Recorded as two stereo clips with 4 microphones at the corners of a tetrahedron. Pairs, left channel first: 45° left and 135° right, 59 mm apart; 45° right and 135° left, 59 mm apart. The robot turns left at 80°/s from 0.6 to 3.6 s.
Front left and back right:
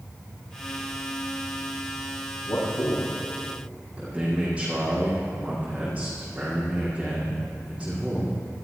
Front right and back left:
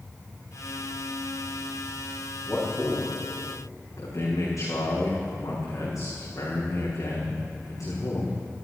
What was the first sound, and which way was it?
A man speaking, 25° left.